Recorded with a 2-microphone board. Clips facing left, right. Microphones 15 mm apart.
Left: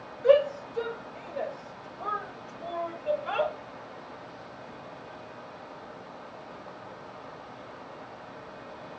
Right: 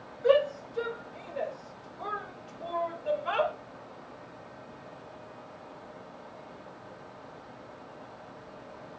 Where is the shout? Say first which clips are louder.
Left 3 dB; centre (ahead or behind), 2 m; by 3.5 s 30° right (ahead or behind), 1.8 m.